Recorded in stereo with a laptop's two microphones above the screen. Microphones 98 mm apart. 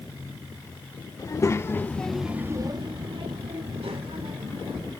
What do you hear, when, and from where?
1.2 s a child speaking: 40° left (ahead or behind), 1.3 m; by 4.9 s 80° right, 2.5 m